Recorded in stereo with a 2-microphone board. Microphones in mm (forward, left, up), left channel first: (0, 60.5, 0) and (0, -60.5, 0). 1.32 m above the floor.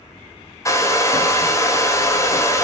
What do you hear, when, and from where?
0.7 s a hair dryer: 25° left (ahead or behind), 0.8 m